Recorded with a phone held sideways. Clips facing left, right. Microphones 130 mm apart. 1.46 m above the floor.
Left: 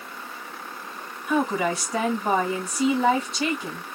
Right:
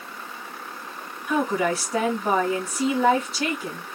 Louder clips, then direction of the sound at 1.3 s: Even; 5° right (ahead or behind).